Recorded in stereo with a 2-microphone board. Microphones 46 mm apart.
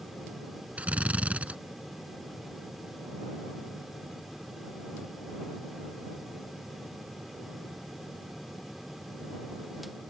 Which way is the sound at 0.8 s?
30° right (ahead or behind).